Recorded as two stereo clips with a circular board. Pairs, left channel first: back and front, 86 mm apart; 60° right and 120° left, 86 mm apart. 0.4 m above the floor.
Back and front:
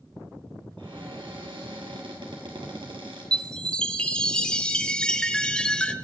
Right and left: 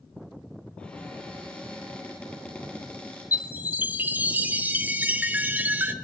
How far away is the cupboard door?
About 3.5 m.